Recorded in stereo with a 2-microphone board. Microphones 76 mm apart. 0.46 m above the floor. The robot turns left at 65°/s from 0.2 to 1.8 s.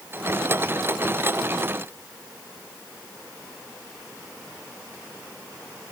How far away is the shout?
No shout in this recording.